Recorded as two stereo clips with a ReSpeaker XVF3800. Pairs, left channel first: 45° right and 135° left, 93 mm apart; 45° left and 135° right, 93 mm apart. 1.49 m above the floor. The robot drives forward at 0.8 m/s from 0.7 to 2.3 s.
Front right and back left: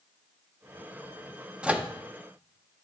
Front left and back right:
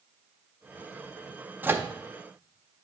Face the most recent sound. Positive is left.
turn(degrees=-175)